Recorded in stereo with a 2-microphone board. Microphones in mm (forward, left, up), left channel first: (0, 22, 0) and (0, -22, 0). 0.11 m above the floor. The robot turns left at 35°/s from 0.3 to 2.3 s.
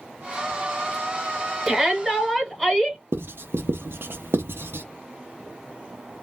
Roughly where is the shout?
Centre.